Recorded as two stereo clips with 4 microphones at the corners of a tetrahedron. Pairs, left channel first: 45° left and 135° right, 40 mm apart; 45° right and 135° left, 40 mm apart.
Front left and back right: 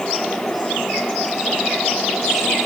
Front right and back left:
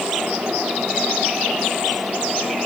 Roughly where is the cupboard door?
I don't hear a cupboard door.